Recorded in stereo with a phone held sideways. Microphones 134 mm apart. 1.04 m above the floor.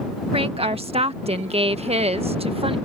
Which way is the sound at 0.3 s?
45° right (ahead or behind).